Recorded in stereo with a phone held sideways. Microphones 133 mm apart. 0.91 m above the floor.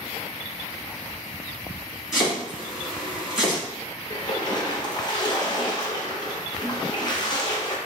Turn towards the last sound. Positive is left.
turn(degrees=35)  # may be behind; listen again after turning